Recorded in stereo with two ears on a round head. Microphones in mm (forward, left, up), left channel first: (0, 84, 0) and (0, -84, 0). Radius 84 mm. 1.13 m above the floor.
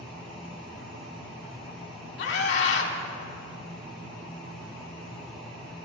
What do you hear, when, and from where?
2.2 s a scream: 60° left (ahead or behind), 2.5 m